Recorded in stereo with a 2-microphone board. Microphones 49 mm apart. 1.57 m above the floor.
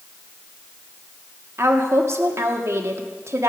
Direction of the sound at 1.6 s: 70° right (ahead or behind).